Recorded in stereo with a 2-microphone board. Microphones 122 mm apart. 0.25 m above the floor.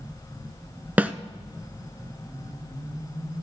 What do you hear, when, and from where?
1.0 s a snare drum: 15° right (ahead or behind), 0.5 m